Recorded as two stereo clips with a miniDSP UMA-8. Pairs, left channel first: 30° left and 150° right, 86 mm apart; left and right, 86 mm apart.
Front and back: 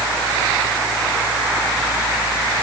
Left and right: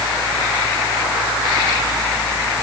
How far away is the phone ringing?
No phone ringing in this recording.